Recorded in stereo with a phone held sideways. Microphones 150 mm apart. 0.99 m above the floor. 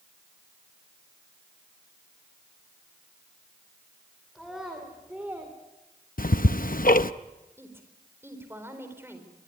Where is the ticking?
70° left (ahead or behind), 0.7 m.